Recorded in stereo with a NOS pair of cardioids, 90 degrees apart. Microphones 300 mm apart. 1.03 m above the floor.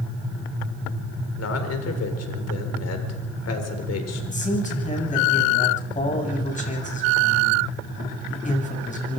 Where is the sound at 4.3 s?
25° left, 7.5 m.